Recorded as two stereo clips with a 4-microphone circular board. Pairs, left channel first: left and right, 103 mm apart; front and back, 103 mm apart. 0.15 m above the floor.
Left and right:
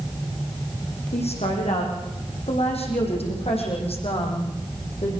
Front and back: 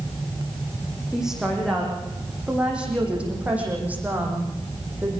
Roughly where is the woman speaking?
Left.